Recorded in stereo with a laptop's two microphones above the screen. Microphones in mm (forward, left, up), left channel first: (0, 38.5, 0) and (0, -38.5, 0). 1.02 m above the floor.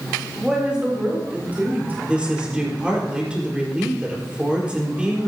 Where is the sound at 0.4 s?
5° right (ahead or behind), 3 m; by 1.9 s 25° right (ahead or behind), 4 m.